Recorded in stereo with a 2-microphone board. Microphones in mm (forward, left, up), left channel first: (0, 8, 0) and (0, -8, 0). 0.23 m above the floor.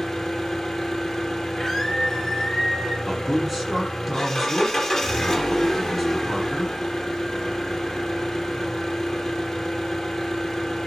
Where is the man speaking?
15° right (ahead or behind), 5.5 m.